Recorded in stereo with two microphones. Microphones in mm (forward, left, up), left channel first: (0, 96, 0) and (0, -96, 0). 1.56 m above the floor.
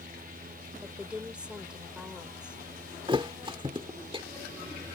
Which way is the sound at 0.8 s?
5° right (ahead or behind).